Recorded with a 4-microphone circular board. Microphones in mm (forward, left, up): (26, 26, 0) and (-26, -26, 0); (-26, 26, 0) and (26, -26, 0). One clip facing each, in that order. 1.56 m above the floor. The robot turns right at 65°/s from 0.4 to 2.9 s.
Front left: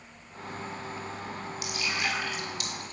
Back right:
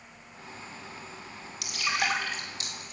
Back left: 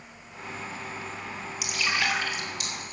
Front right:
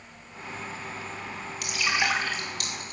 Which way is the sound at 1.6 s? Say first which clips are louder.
Back right 3 dB, front right 1 dB; 140° right.